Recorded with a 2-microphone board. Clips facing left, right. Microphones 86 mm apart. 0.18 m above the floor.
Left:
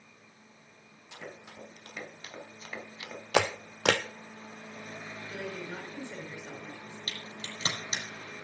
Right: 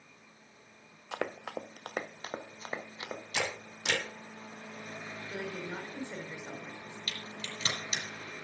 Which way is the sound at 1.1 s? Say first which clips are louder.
Right 10 dB; 80° right.